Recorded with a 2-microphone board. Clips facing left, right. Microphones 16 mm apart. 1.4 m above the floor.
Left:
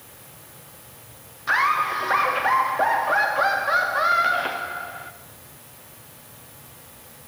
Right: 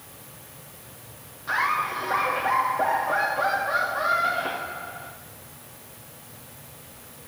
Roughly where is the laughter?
Left.